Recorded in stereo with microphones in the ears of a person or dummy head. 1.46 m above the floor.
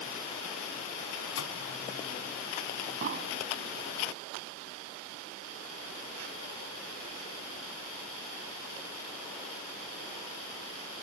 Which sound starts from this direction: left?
A microwave, at 1.4 s.